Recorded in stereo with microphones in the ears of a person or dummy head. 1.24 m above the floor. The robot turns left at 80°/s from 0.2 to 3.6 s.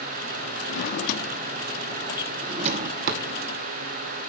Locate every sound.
0.7 s a drawer: 55° left (ahead or behind), 0.9 m; by 3.2 s 55° right (ahead or behind), 0.9 m